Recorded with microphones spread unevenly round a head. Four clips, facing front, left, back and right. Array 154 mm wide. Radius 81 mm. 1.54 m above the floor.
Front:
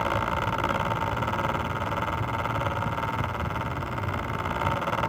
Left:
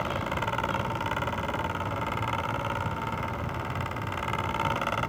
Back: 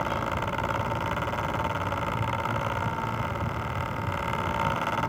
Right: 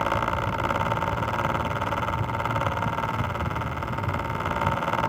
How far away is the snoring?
No snoring in this recording.